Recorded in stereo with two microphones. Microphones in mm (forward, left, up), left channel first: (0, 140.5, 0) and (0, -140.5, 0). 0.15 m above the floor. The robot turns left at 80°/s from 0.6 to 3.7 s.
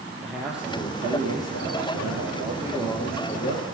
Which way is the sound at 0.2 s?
5° right.